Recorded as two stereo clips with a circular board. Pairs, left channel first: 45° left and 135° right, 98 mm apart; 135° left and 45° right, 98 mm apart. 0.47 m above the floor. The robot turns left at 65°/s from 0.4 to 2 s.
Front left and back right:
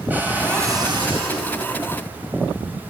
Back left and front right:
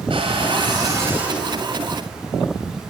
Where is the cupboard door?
65° right, 2.5 m; by 1.5 s 135° right, 2.5 m.